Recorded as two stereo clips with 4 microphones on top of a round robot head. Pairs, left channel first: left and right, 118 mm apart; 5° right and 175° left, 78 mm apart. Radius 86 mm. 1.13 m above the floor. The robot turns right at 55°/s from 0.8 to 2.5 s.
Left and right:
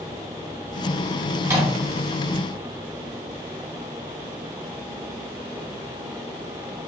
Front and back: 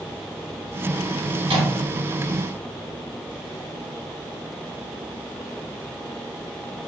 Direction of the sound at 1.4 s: 165° right.